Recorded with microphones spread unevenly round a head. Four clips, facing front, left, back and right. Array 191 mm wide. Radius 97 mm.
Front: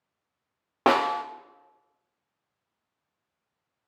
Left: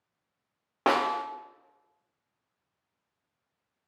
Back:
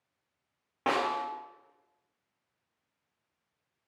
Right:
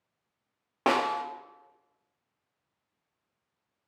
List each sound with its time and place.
0.9 s a snare drum: 20° left, 0.6 m